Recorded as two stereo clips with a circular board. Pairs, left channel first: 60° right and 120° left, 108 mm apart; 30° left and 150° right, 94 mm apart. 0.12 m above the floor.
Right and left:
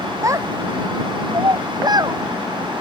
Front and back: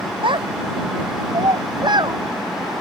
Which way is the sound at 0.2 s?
Straight behind.